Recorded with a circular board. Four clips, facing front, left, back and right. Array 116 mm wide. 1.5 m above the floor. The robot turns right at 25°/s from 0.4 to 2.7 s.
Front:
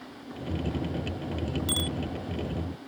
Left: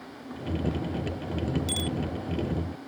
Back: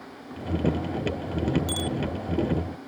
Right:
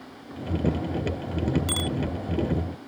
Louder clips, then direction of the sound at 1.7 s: Right 2 dB, back 3 dB; 80° right.